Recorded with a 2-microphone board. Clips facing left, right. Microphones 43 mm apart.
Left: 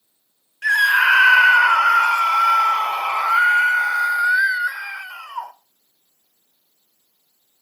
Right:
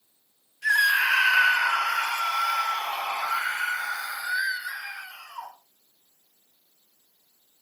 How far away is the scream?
About 2.5 m.